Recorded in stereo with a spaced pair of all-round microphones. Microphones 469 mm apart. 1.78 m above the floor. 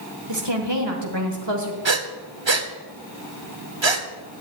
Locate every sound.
0.3 s a woman speaking: 60° right (ahead or behind), 1.5 m
1.9 s breathing: 70° right (ahead or behind), 0.9 m